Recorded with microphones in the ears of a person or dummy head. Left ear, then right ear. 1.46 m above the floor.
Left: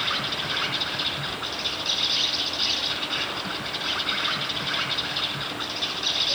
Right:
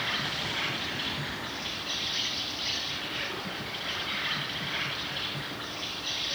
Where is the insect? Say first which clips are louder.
Left 4 dB; 30° left (ahead or behind), 3 m.